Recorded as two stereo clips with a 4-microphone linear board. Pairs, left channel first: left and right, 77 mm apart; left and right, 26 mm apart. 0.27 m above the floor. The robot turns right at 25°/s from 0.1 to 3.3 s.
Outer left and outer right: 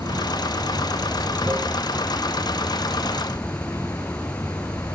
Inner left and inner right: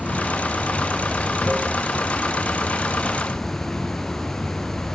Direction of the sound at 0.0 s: 70° right.